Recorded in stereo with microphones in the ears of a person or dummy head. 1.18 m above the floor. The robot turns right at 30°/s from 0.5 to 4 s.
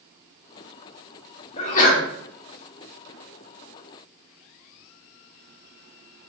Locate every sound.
1.6 s a sneeze: 35° left (ahead or behind), 1.1 m; by 2.0 s 50° left (ahead or behind), 1.1 m